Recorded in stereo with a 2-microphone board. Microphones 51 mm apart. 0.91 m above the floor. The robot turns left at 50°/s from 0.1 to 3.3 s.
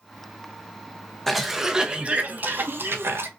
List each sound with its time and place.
1.3 s a cough: 5° left, 0.7 m; by 3.3 s 95° right, 0.7 m